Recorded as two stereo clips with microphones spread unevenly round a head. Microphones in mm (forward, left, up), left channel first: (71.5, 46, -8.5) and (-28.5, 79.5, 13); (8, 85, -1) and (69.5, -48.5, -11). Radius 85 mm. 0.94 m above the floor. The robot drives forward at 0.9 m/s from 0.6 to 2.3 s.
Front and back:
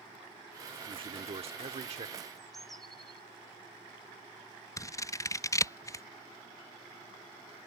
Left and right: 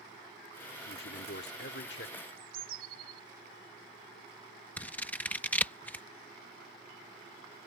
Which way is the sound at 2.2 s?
105° right.